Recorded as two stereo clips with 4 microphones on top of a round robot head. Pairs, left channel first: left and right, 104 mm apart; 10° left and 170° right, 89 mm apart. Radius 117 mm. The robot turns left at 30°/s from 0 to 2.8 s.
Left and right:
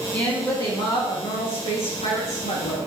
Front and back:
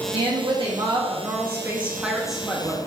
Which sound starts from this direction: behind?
A woman speaking, at 0.1 s.